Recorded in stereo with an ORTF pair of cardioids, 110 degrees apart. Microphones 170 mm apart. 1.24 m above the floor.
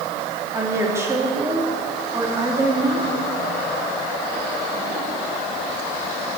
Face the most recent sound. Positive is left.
turn(degrees=-15)